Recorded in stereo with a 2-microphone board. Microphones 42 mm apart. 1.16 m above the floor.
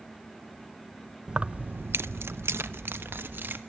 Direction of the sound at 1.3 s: 25° right (ahead or behind).